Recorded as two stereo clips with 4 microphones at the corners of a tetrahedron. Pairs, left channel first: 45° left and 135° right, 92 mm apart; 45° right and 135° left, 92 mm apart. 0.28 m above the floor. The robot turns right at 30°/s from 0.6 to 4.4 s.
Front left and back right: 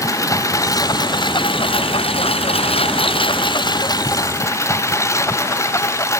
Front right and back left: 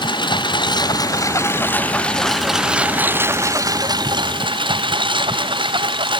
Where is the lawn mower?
10° right; by 6.2 s 105° left.